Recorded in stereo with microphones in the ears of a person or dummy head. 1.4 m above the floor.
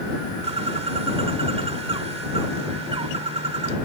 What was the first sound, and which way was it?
A bird, 30° right (ahead or behind).